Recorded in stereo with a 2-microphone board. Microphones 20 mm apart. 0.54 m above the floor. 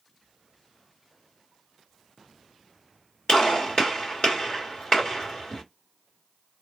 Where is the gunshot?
55° left (ahead or behind), 1.9 m.